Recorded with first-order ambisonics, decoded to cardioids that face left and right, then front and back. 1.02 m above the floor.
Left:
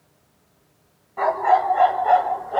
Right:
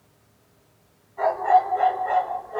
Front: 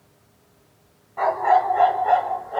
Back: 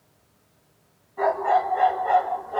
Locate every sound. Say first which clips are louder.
1.2 s a dog barking: left 1 dB, front 3 dB; 45° left, 2 m; by 2.6 s 80° left, 1.3 m